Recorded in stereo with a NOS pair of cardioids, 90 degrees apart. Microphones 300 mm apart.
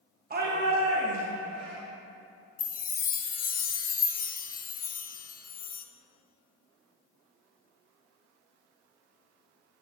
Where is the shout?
30° right, 1.2 m; by 1.8 s 70° right, 1.7 m.